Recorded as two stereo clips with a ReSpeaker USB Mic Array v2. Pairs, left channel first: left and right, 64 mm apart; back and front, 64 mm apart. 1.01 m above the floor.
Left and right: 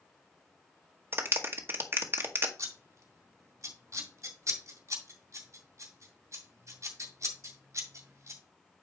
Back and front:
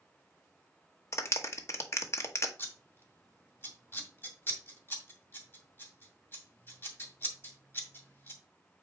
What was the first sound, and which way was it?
A clap, 140° right.